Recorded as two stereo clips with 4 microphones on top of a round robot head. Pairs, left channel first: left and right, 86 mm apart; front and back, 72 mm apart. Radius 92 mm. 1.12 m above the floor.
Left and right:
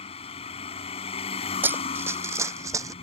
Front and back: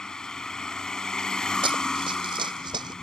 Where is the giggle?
No giggle in this recording.